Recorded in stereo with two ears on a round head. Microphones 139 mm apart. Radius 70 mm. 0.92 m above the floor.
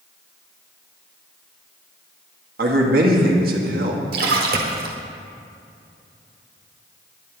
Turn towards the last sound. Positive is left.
turn(degrees=-65)  # may be behind; listen again after turning